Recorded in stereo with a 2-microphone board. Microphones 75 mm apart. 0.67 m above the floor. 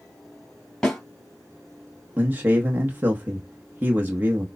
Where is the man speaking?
25° right (ahead or behind), 1.0 m.